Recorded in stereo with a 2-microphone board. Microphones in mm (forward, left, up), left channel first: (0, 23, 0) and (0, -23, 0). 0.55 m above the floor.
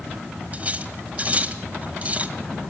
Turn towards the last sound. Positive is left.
turn(degrees=-30)  # may be behind; listen again after turning